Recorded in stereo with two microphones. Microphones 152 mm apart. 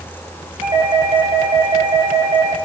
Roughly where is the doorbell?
Right.